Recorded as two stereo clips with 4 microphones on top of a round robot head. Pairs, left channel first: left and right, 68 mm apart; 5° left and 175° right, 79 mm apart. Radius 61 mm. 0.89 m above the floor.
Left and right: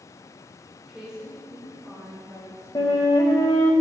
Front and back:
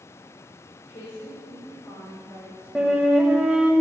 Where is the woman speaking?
10° right, 3 m; by 3.2 s 35° right, 5 m.